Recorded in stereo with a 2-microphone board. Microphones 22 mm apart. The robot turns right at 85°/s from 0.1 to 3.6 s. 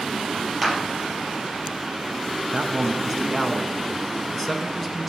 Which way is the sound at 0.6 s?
15° right (ahead or behind).